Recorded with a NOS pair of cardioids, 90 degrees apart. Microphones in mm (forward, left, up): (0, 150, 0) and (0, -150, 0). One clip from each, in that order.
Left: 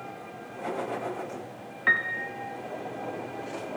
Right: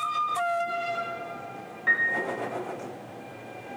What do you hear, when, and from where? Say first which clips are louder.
1.9 s a piano: right 1 dB; 40° left, 1.5 m